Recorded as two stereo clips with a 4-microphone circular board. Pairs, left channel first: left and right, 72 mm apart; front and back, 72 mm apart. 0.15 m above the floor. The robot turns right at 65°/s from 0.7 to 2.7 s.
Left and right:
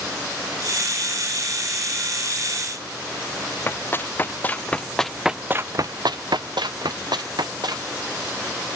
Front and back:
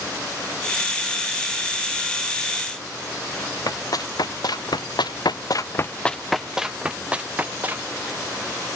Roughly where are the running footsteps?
Ahead left.